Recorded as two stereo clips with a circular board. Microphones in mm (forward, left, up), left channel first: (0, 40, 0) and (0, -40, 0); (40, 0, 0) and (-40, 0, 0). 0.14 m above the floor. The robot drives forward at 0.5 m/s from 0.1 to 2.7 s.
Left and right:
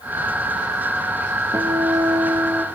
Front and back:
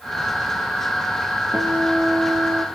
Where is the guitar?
125° right, 3 m; by 2.6 s 135° right, 3.5 m.